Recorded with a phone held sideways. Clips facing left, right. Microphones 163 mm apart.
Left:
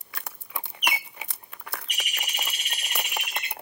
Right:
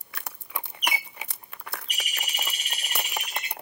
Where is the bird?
35° right (ahead or behind), 2.0 m.